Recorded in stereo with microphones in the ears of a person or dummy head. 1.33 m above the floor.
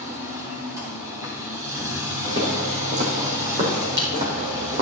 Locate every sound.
0.0 s a machine running: 10° right (ahead or behind), 3 m
2.2 s footsteps: 35° right (ahead or behind), 5 m; by 4.8 s 30° right (ahead or behind), 4 m